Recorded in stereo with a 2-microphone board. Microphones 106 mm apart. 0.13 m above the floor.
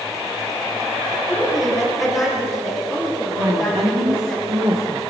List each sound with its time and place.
1.3 s a woman speaking: centre (ahead or behind), 4 m
3.4 s a woman speaking: 60° right (ahead or behind), 5 m